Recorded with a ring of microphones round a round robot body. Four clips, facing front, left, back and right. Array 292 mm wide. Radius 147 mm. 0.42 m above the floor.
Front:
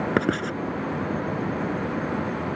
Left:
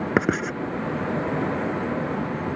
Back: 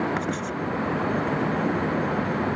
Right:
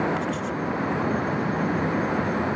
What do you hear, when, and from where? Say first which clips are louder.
0.2 s writing: left 4 dB, front 4 dB; 60° left